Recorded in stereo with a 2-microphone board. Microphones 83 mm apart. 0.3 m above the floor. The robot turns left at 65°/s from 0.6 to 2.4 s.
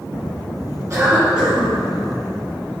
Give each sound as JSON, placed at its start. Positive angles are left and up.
{"t": 0.9, "sound": "a cough", "azimuth_deg": -135, "distance_m": 2.5}